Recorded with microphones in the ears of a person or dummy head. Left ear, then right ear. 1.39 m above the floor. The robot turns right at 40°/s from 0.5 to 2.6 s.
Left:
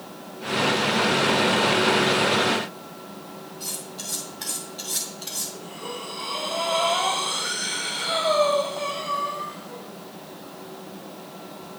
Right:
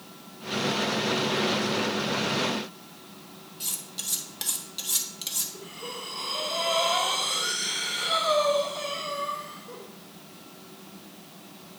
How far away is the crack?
I don't hear a crack.